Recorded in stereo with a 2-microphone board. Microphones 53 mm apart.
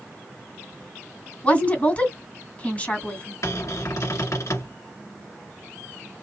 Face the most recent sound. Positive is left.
turn(degrees=65)  # may be behind; listen again after turning